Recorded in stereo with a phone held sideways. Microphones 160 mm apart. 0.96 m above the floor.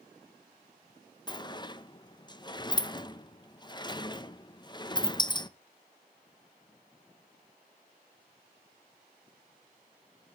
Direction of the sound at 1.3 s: 30° left (ahead or behind).